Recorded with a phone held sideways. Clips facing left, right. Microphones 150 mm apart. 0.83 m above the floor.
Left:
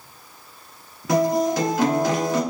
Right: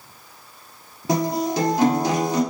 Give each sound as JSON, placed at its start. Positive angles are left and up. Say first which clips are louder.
{"t": 1.1, "sound": "a guitar", "louder": "left 3 dB", "side_deg": -35, "distance_m": 1.5}